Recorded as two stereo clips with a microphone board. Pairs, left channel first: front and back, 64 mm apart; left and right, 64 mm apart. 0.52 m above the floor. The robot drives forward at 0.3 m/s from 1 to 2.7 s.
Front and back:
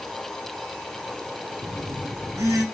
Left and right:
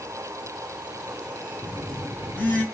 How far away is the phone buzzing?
About 1.1 m.